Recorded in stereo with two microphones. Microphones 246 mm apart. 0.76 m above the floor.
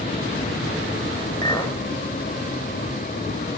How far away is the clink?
About 2 m.